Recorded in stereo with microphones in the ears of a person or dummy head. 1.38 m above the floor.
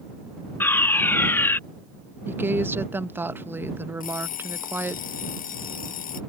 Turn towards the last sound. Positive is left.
turn(degrees=50)  # may be behind; listen again after turning